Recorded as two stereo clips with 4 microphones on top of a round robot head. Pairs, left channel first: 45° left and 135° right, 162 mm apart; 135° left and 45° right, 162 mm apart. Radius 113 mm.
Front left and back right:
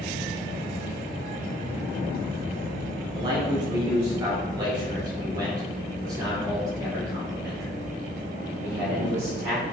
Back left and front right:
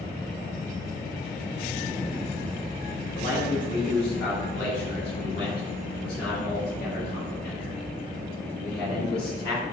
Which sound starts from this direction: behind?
A man speaking, at 3.1 s.